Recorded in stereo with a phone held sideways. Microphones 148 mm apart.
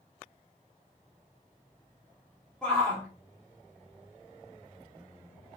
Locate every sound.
2.6 s a shout: 5° left (ahead or behind), 2.5 m